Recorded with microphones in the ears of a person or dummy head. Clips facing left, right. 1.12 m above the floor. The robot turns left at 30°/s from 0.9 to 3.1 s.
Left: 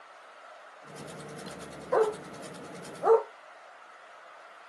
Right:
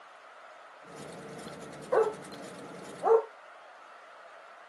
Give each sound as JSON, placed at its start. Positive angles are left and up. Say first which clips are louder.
{"t": 1.9, "sound": "a dog barking", "louder": "left 1 dB", "side_deg": -5, "distance_m": 0.7}